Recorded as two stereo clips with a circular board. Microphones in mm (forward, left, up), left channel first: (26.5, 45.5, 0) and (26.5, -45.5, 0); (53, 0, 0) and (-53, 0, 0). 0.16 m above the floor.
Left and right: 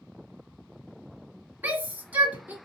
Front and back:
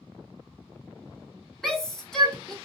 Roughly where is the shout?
Right.